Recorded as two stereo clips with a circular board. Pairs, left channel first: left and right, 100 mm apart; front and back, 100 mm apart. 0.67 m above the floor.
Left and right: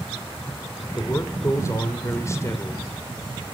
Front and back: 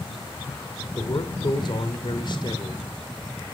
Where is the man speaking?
30° left, 2.5 m.